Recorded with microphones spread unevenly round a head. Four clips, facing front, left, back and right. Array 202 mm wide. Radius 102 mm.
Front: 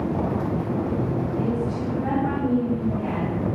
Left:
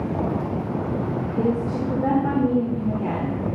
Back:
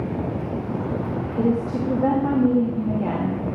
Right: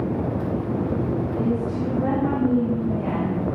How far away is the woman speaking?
About 2.5 m.